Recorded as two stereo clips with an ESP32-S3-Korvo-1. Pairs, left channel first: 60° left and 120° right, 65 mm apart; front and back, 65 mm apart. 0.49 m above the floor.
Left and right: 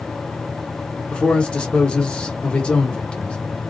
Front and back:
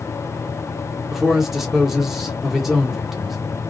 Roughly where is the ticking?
I don't hear ticking.